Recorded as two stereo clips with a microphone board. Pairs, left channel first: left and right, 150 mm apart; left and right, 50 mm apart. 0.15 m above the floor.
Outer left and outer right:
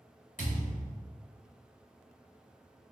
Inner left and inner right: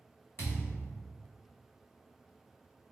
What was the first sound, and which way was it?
A thud, 60° left (ahead or behind).